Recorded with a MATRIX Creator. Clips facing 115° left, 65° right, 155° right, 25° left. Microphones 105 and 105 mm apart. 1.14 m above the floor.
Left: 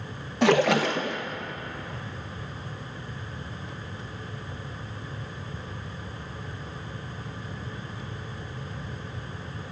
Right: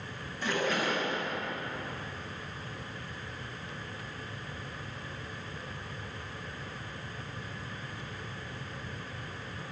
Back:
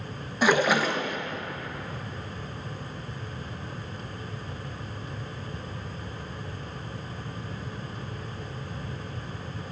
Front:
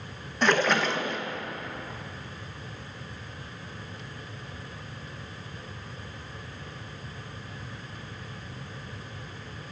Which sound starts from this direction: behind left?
A splash, at 0.4 s.